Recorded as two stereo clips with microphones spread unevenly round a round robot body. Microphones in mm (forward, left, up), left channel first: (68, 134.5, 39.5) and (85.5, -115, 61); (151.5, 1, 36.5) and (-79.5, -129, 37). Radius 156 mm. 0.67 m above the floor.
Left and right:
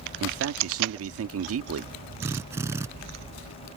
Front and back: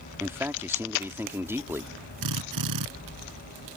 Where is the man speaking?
70° right.